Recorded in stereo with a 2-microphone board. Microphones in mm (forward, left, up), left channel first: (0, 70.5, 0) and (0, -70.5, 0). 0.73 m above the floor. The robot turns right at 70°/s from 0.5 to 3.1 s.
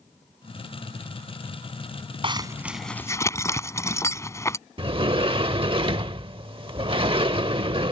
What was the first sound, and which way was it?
A zipper, 40° right (ahead or behind).